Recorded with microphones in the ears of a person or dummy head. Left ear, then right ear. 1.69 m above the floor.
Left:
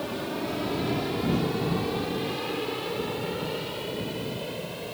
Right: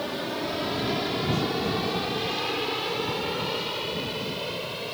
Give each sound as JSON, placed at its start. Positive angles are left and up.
{"t": 0.0, "sound": "an aircraft", "side_deg": -25}